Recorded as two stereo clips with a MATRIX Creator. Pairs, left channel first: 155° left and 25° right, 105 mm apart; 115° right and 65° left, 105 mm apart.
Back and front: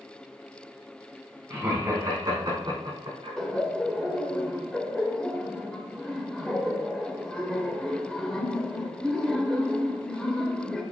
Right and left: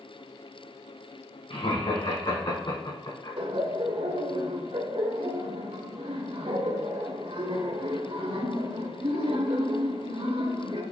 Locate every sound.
1.5 s laughter: 90° right, 4.5 m; by 3.4 s 60° right, 5 m
3.4 s laughter: 75° left, 1.8 m